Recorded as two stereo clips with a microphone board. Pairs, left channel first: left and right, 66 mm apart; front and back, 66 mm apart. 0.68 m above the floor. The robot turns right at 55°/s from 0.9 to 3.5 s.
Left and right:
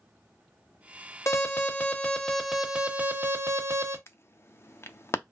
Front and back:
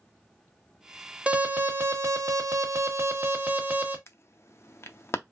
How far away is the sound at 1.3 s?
About 1.0 m.